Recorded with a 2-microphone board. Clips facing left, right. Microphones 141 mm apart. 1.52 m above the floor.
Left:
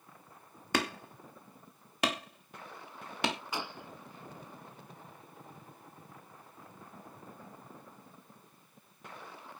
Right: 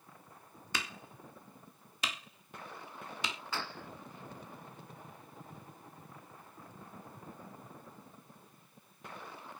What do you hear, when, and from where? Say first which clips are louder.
0.7 s hammering: left 10 dB; 75° left (ahead or behind)
3.5 s a gunshot: left 2 dB; 15° left (ahead or behind)